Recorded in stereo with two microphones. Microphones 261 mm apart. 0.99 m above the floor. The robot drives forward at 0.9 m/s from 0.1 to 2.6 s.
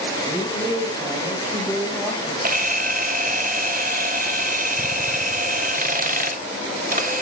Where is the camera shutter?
35° right (ahead or behind), 0.9 m.